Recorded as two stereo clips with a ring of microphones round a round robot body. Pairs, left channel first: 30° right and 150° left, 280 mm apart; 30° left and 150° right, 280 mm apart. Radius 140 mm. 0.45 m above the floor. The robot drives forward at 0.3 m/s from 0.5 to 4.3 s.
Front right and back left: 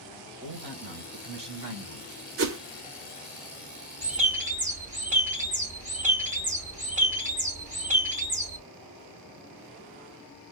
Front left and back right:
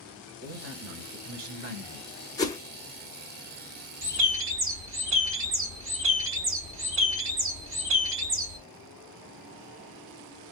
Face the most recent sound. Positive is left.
turn(degrees=-160)